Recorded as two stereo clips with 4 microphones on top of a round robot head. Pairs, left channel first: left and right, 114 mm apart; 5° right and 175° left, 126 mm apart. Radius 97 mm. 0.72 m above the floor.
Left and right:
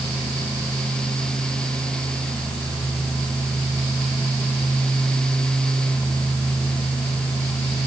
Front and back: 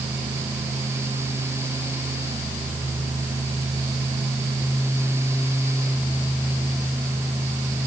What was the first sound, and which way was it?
Only background noise.